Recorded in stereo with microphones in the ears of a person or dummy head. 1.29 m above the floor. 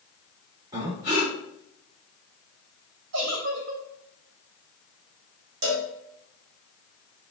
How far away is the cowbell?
About 1.1 m.